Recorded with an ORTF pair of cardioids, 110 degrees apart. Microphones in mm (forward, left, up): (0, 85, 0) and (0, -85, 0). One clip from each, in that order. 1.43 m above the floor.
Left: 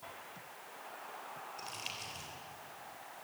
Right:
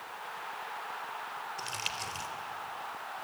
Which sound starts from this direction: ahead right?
Crumpling, at 1.6 s.